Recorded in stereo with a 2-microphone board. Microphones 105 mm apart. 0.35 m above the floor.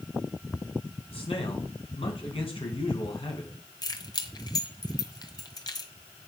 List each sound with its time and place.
1.1 s a man speaking: 70° left (ahead or behind), 4 m
3.8 s keys jangling: 45° left (ahead or behind), 1.4 m